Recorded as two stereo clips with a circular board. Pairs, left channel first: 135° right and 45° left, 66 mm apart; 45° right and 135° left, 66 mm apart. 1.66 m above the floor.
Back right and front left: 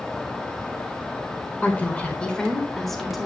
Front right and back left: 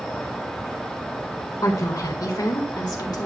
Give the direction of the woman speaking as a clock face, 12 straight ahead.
2 o'clock.